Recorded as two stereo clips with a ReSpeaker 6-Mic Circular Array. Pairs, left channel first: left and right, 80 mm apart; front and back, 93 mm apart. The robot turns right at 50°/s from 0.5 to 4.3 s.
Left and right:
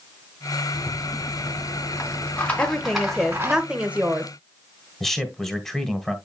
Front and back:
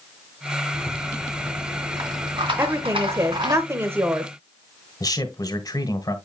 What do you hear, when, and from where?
0.7 s a rattle: 75° left, 2.5 m; by 3.6 s 145° right, 2.5 m
2.6 s a woman speaking: 145° left, 1.0 m; by 4.3 s 130° right, 1.0 m
5.0 s a man speaking: 5° left, 1.7 m